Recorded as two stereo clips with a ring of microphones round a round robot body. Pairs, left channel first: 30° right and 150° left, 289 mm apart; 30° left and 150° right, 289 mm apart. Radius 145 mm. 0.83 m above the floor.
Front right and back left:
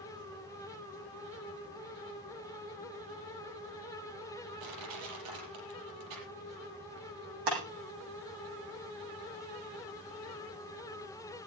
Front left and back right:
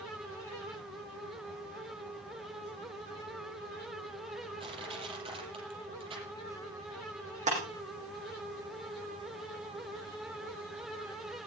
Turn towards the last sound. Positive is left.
turn(degrees=145)